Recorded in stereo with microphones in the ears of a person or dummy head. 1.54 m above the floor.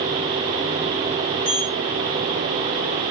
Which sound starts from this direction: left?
A sliding door, at 1.4 s.